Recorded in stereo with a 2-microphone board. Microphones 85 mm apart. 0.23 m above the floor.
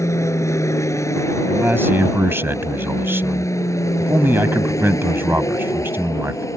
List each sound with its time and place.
0.0 s an aircraft: 35° left (ahead or behind)
1.5 s a man speaking: 30° right (ahead or behind)